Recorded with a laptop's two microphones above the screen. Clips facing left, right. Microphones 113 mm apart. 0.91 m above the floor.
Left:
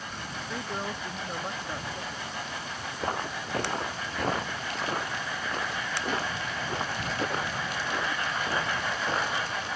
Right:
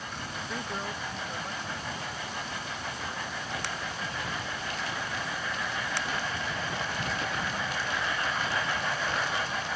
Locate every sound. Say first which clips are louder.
0.5 s a woman speaking: left 2 dB; 5° left (ahead or behind); by 2.3 s 50° left (ahead or behind)
3.0 s footsteps: left 5 dB; 55° left (ahead or behind); by 9.7 s 30° left (ahead or behind)